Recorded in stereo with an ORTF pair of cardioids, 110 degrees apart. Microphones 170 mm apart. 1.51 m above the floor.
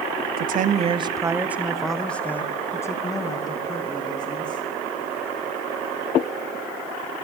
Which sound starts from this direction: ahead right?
A woman speaking, at 0.4 s.